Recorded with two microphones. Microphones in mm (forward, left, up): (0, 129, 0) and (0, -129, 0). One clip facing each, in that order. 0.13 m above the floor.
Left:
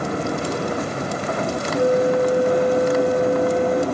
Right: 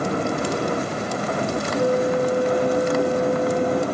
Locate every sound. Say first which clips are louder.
1.8 s a flute: left 3 dB; 20° left (ahead or behind)